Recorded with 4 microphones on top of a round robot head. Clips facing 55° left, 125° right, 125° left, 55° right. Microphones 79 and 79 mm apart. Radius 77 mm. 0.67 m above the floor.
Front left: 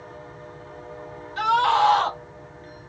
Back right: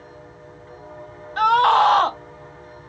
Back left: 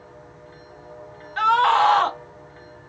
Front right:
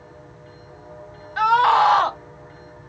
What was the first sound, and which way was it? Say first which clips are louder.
A scream: back right 4 dB, front right 1 dB; 135° right.